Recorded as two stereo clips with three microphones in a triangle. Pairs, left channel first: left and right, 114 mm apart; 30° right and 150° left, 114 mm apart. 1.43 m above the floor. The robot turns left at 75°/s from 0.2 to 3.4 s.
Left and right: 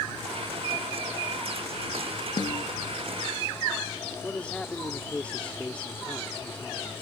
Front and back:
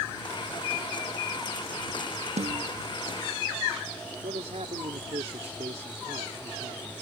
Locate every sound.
2.4 s a snare drum: 140° left; by 2.6 s 115° left
4.2 s a man speaking: 170° left